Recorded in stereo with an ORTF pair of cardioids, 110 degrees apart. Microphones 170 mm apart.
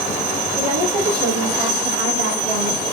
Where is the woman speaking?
55° right, 3.5 m; by 2.8 s 60° right, 1.9 m.